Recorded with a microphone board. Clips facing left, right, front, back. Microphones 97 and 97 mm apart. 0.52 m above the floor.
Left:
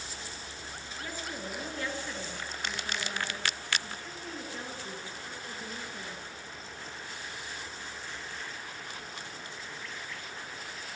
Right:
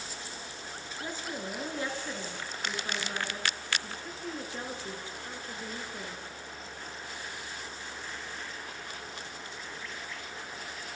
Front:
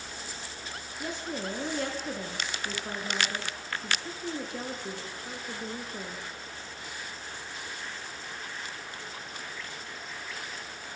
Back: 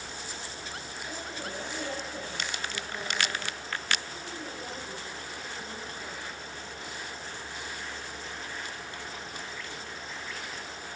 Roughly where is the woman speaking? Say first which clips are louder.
Right 2 dB, front 6 dB; ahead.